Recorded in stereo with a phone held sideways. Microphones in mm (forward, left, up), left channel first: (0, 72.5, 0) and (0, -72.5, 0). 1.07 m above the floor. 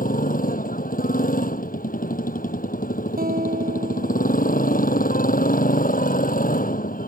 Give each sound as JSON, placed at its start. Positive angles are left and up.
{"t": 0.0, "sound": "a motorcycle", "side_deg": 75}
{"t": 3.2, "sound": "a guitar", "side_deg": -90}